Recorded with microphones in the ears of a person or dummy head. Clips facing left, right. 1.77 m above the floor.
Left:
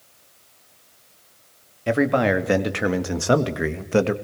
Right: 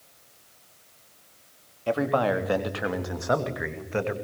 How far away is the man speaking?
About 3 m.